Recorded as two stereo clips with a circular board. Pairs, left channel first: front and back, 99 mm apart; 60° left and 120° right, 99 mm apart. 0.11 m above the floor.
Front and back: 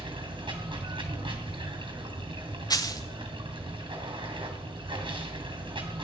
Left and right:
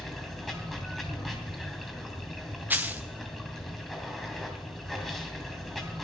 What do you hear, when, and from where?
0.0 s running water: 150° left, 2.5 m
2.7 s a dropped coin: 50° right, 0.5 m